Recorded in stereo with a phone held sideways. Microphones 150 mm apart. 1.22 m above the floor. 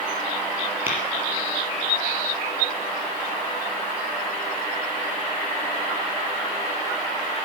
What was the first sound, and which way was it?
Tapping, 15° right (ahead or behind).